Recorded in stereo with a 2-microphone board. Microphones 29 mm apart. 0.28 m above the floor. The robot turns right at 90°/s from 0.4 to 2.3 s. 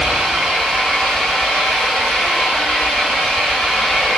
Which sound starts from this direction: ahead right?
An engine running, at 0.0 s.